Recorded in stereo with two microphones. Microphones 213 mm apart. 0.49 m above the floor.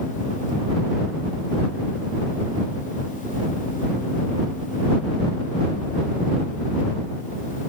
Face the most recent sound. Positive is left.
No sound to turn to.